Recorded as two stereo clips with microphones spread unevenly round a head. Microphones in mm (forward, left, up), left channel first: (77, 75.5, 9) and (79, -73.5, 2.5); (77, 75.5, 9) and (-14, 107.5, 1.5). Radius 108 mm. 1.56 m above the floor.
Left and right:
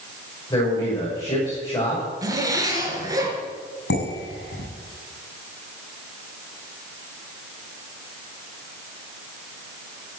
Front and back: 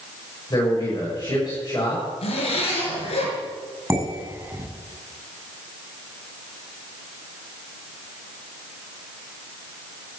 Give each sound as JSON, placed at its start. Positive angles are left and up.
{"t": 0.5, "sound": "a man speaking", "azimuth_deg": 30, "distance_m": 7.5}
{"t": 2.2, "sound": "a zipper", "azimuth_deg": -20, "distance_m": 5.5}
{"t": 3.9, "sound": "dishes clattering", "azimuth_deg": 100, "distance_m": 7.0}